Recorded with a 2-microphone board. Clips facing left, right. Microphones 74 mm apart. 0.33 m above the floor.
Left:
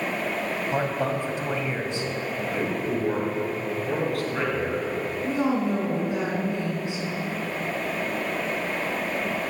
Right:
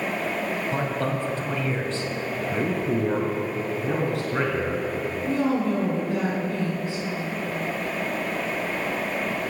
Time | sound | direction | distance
0.7 | a man speaking | 15° left (ahead or behind) | 2 m
2.5 | a man speaking | 25° right (ahead or behind) | 4 m
5.2 | a woman speaking | 15° left (ahead or behind) | 3 m